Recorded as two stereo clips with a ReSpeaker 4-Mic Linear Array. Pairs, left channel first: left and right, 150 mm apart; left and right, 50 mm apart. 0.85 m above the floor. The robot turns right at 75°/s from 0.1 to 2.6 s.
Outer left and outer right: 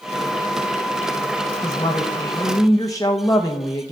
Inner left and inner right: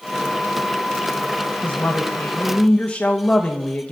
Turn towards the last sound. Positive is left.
turn(degrees=25)  # may be behind; listen again after turning